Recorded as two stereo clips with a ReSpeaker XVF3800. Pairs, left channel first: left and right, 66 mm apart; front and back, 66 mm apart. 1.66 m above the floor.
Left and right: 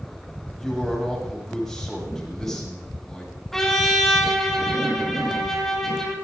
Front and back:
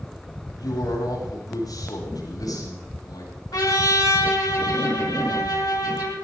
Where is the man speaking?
5° left, 7.5 m.